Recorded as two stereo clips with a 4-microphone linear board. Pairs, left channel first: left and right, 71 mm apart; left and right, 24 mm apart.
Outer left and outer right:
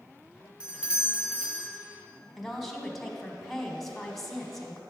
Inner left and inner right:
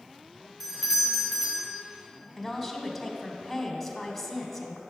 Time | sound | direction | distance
0.6 | a doorbell | 15° right (ahead or behind) | 2.5 m
2.4 | a woman speaking | 5° left (ahead or behind) | 1.2 m